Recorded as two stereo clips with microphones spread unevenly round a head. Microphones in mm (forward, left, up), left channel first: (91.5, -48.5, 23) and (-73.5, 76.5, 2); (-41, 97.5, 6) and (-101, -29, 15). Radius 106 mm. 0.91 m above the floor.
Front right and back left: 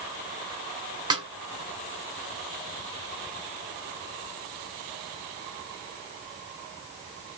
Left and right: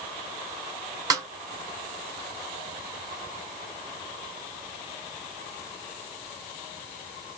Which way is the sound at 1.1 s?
150° right.